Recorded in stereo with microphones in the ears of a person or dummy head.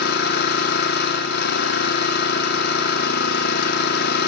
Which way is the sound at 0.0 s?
55° left (ahead or behind).